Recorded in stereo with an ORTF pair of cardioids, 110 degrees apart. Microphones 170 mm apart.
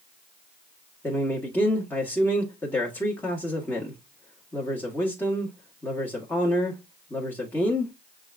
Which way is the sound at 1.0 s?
15° left.